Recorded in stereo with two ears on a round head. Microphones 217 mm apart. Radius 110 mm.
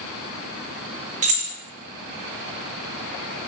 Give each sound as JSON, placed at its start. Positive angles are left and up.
{"t": 1.2, "sound": "keys jangling", "side_deg": -30, "distance_m": 0.7}